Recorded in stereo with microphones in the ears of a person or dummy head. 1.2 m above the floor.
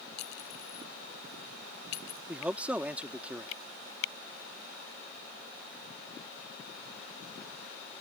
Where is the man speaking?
Centre (ahead or behind).